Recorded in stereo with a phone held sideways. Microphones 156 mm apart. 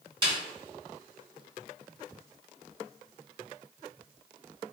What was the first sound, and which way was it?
A snare drum, 30° right (ahead or behind).